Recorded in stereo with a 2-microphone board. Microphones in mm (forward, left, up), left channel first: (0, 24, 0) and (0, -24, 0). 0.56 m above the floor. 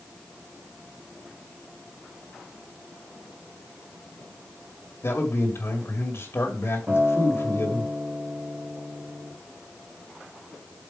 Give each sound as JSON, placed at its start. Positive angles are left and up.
{"t": 5.0, "sound": "a man speaking", "side_deg": 60, "distance_m": 1.9}
{"t": 6.9, "sound": "a guitar", "side_deg": -35, "distance_m": 2.5}